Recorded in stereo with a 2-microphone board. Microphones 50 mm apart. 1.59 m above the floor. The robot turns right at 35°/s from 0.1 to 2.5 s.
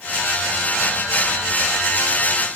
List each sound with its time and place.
Only background noise.